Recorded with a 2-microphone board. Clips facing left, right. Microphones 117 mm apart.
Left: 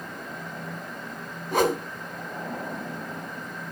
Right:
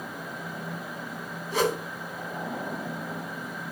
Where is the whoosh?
55° left (ahead or behind), 1.4 m.